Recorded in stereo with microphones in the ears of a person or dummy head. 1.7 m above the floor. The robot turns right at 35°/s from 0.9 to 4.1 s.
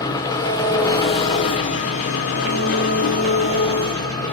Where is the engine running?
40° left, 0.7 m; by 4.3 s 150° left, 0.7 m.